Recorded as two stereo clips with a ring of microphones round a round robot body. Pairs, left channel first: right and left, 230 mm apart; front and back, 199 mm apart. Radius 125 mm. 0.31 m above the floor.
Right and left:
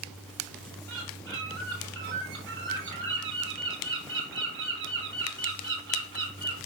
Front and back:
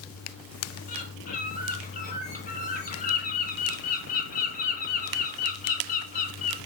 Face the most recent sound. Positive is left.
turn(degrees=55)